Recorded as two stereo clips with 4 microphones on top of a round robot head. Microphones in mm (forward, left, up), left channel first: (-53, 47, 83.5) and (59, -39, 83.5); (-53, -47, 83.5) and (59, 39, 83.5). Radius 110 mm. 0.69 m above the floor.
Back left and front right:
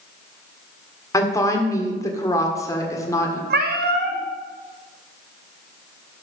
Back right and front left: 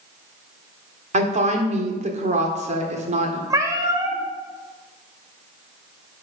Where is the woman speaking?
75° left, 1.8 m.